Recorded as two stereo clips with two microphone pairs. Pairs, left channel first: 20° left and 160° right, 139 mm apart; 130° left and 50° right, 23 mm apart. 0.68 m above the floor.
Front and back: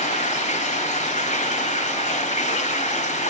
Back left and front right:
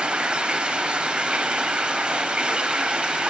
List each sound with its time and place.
0.0 s running water: 10° right, 2 m